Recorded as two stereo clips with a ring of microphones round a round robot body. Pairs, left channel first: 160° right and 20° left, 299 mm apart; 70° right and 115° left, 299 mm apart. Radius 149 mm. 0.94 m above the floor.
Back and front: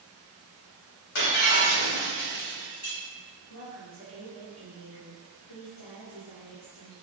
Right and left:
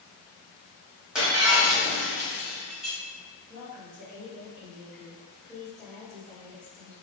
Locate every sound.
1.1 s breaking glass: 160° right, 1.1 m
3.5 s a woman speaking: 155° right, 1.1 m